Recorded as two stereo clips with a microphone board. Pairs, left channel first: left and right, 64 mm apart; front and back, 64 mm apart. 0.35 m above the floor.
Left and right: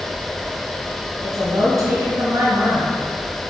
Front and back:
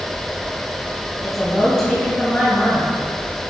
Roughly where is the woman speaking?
Right.